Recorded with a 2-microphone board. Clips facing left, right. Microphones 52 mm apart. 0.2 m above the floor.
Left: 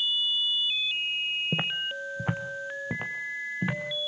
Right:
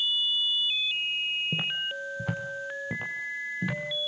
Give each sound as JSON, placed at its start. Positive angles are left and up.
{"t": 1.5, "sound": "footsteps", "side_deg": 35, "distance_m": 1.2}